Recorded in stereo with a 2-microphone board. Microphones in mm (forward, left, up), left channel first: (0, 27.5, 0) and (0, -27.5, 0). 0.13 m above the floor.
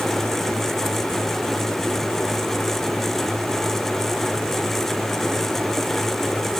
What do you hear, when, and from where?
Only background noise.